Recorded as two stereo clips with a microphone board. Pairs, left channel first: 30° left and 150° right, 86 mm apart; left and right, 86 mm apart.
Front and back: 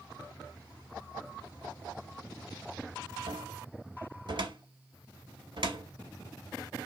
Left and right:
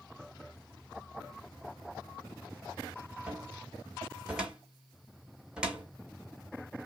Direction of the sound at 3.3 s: 170° right.